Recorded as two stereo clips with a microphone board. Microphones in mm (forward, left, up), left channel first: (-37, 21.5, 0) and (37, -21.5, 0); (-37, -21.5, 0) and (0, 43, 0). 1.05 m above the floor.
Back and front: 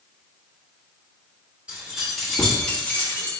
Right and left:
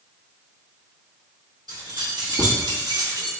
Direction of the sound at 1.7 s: 45° left.